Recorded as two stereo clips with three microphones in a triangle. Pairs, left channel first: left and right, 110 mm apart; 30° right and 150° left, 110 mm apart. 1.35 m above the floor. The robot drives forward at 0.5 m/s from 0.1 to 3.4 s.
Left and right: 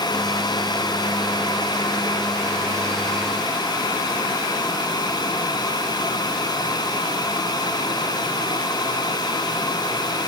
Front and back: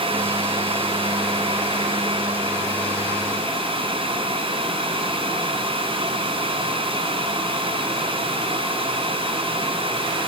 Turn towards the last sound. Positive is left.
No sound to turn to.